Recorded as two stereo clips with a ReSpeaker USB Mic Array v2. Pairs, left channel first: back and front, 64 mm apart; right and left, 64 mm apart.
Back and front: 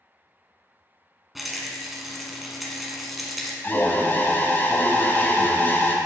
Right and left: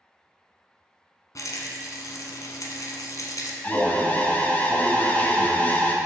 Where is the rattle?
90° right, 1.3 m.